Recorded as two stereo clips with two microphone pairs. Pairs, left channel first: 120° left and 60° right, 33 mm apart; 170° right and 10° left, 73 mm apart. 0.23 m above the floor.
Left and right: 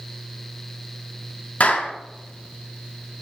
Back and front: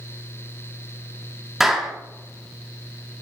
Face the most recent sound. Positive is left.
turn(degrees=95)